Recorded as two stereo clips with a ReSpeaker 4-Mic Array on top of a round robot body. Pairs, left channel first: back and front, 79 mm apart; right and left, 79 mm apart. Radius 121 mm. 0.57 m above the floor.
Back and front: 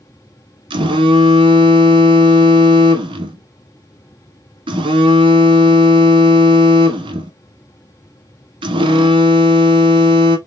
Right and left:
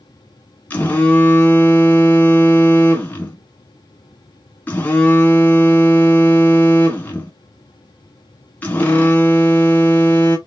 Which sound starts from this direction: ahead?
A phone buzzing, at 0.7 s.